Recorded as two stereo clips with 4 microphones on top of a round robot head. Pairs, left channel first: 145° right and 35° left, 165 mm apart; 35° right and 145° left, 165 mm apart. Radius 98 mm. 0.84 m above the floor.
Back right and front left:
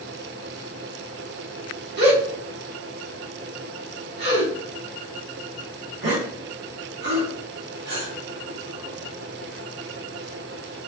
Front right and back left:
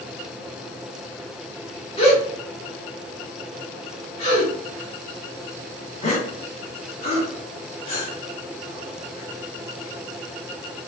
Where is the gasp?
20° left, 1.2 m.